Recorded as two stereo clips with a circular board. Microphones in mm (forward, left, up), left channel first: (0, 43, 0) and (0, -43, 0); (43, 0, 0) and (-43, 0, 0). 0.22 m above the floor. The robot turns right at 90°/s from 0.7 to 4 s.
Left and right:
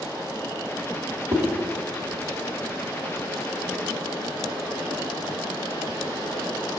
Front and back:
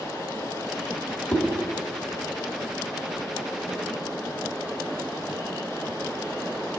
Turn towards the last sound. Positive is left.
turn(degrees=-175)